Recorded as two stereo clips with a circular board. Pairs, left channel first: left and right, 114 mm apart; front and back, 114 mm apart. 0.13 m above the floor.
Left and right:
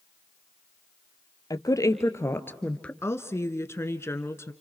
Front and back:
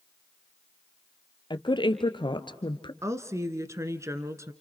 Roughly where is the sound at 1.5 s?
Ahead left.